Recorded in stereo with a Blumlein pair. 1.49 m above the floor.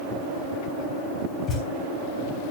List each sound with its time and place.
1.5 s a thud: 20° left, 3.5 m